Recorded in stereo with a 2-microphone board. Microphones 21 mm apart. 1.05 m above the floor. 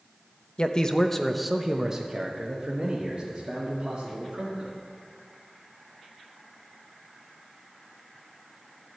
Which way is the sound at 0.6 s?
45° left (ahead or behind).